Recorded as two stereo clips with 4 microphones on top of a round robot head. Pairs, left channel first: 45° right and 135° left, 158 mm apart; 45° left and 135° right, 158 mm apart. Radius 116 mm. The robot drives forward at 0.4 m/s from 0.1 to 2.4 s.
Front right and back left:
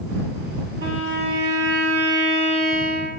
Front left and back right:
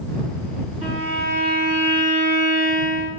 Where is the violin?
170° left, 1.6 m.